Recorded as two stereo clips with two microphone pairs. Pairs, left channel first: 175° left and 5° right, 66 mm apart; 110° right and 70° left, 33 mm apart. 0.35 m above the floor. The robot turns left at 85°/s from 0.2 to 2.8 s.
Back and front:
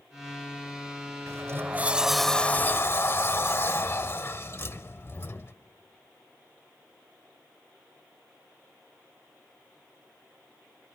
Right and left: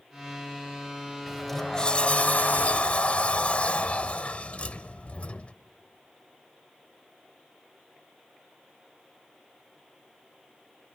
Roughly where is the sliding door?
Ahead.